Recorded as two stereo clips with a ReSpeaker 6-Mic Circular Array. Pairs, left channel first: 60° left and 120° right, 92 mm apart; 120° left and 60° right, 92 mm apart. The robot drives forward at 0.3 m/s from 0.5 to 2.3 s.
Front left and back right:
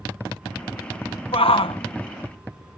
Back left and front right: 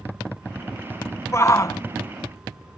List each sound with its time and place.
1.3 s a shout: 65° left; by 1.8 s 70° left